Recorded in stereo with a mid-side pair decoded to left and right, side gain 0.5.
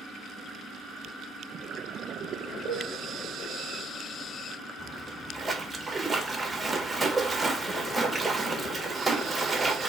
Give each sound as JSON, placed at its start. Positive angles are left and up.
{"t": 2.7, "sound": "dishes clattering", "azimuth_deg": 25, "distance_m": 3.0}
{"t": 4.8, "sound": "a splash", "azimuth_deg": -10, "distance_m": 1.0}